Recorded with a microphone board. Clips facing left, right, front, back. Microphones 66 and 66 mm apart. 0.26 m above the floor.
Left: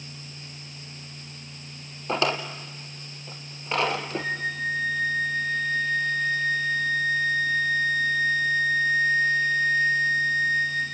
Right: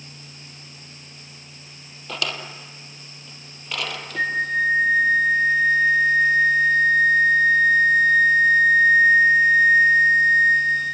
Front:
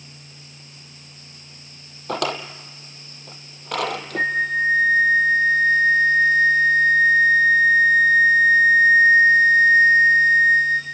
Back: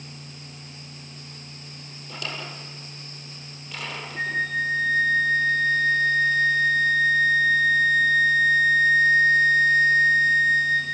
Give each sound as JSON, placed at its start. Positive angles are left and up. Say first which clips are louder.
{"t": 2.1, "sound": "a drawer", "louder": "left 5 dB, front 10 dB", "azimuth_deg": 30, "distance_m": 1.7}
{"t": 4.2, "sound": "a flute", "louder": "right 7 dB, front 5 dB", "azimuth_deg": -60, "distance_m": 6.5}